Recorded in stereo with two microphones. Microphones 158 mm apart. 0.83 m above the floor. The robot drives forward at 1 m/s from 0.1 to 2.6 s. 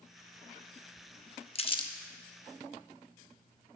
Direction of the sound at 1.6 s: 40° left (ahead or behind).